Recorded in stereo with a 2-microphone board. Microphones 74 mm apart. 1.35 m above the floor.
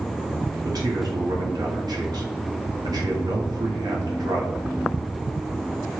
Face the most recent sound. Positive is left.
turn(degrees=-65)  # may be behind; listen again after turning